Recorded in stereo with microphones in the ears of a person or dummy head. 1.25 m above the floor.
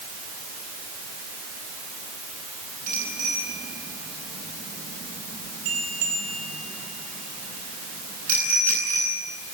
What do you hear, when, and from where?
2.9 s a bicycle bell: 40° right (ahead or behind), 9.5 m